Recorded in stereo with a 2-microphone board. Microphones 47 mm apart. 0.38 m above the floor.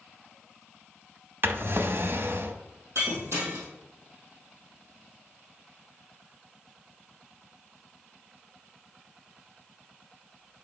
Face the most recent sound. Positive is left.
turn(degrees=-70)  # may be behind; listen again after turning